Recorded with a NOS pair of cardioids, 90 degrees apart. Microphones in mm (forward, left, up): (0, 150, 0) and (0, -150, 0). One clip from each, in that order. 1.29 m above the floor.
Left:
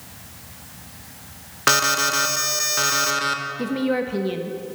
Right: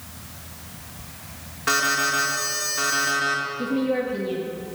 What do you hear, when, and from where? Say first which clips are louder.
1.7 s an alarm: left 2 dB; 60° left, 1.0 m
3.6 s a woman speaking: left 1 dB; 30° left, 0.6 m